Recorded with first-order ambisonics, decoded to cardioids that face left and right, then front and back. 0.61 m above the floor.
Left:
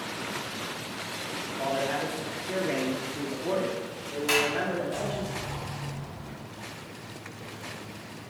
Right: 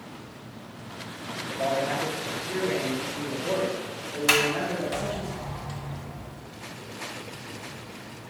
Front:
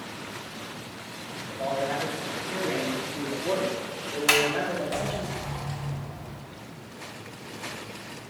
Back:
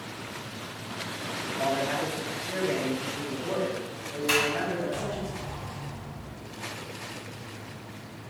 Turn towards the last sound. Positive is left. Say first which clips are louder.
# right 3 dB, front 3 dB
turn(degrees=-35)